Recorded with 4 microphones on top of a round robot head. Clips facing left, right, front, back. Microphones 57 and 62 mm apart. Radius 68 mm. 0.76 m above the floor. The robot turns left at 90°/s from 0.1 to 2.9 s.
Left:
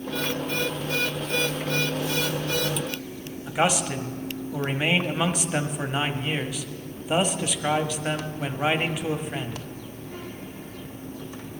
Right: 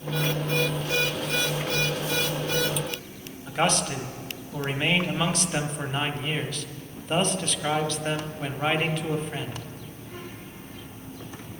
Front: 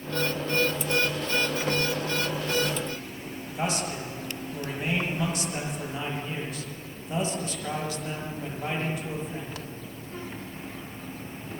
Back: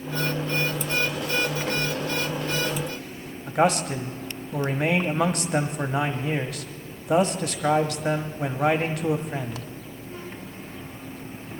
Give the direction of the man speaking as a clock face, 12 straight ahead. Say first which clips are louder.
Left 1 dB, back 9 dB; 6 o'clock.